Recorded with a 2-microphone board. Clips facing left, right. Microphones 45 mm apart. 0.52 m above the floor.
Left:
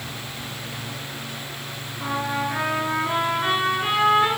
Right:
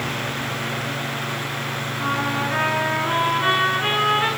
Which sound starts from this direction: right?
A trumpet, at 2.0 s.